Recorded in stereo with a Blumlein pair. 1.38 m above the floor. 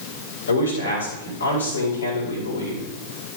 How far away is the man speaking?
About 4.5 m.